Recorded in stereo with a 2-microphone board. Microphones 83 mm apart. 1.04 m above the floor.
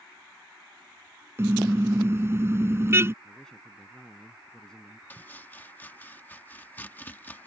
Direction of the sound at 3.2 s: 10° left (ahead or behind).